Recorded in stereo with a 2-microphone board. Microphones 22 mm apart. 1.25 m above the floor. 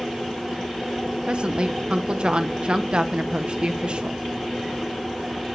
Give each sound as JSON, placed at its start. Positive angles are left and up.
{"t": 1.2, "sound": "a woman speaking", "side_deg": -55, "distance_m": 1.0}